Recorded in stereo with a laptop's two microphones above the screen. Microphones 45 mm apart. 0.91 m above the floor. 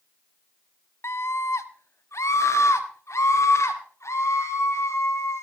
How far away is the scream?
About 0.9 m.